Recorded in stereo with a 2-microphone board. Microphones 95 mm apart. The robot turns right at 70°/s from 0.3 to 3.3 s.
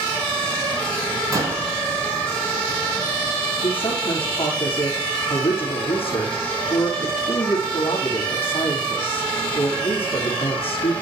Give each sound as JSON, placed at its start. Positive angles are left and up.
{"t": 1.3, "sound": "a door slam", "side_deg": -40, "distance_m": 3.0}
{"t": 3.6, "sound": "a man speaking", "side_deg": 70, "distance_m": 5.0}